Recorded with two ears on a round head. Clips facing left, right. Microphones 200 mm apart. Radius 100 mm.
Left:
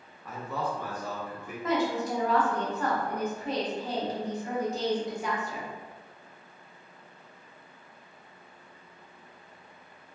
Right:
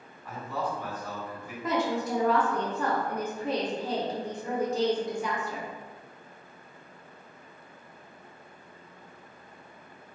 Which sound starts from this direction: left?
A man speaking, at 0.2 s.